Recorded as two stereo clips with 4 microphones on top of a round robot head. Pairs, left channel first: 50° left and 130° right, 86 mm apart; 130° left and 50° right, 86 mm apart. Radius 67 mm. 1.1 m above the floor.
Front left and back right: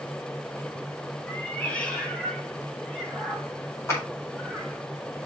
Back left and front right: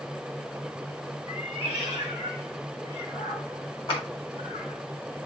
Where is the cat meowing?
125° left, 1.9 m; by 4.8 s 130° left, 4 m.